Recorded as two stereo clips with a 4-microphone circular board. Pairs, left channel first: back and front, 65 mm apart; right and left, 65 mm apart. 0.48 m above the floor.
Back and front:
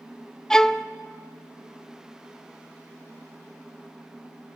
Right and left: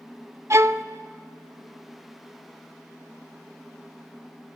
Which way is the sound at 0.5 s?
105° left.